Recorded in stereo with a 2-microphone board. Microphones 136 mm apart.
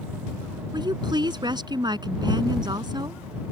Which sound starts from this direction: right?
A woman speaking, at 0.7 s.